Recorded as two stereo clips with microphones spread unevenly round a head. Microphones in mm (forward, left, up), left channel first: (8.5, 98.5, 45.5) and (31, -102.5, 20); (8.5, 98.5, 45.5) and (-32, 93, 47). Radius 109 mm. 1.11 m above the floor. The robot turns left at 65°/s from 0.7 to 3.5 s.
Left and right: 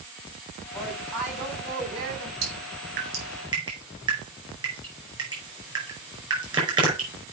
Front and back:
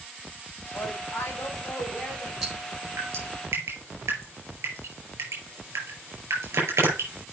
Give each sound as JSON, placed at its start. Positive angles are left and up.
{"t": 0.7, "sound": "a woman speaking", "azimuth_deg": 35, "distance_m": 4.5}
{"t": 2.4, "sound": "dripping", "azimuth_deg": -80, "distance_m": 5.0}